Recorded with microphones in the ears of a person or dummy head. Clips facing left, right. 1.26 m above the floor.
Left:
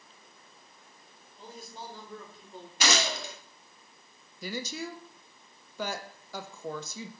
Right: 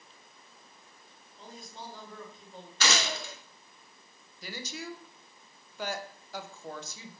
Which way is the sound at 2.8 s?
15° left (ahead or behind).